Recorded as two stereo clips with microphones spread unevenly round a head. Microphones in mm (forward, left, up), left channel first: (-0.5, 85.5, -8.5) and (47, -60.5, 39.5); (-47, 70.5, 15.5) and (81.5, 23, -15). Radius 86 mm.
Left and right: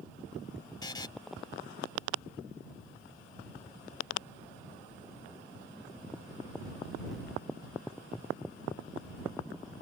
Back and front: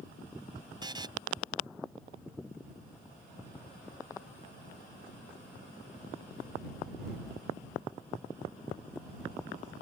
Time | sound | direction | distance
0.8 | a buzzer | 40° left | ?